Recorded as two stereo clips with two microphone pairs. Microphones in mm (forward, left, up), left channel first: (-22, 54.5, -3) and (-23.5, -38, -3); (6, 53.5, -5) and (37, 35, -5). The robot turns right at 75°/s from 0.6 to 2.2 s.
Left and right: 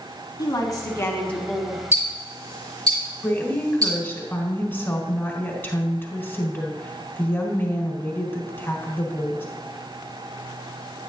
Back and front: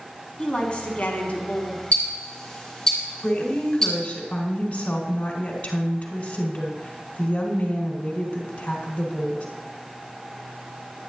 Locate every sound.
0.4 s a woman speaking: 105° left, 1.5 m; by 1.8 s 165° right, 1.5 m
1.9 s ticking: 155° right, 3.5 m; by 3.9 s 135° right, 3.5 m
3.2 s a woman speaking: 145° left, 1.3 m